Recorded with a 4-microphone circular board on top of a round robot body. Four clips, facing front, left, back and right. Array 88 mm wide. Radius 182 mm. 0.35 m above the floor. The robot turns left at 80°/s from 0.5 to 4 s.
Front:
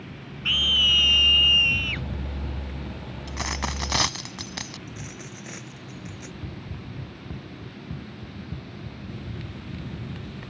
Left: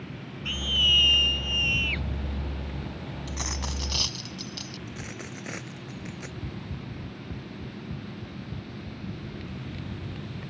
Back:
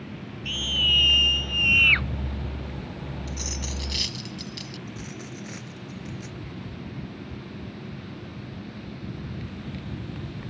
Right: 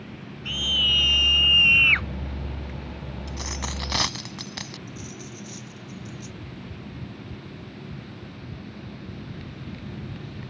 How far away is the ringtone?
I don't hear a ringtone.